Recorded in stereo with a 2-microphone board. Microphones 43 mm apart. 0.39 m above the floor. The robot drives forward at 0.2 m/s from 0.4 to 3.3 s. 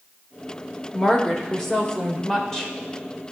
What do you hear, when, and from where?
0.9 s a woman speaking: 15° left (ahead or behind), 1.2 m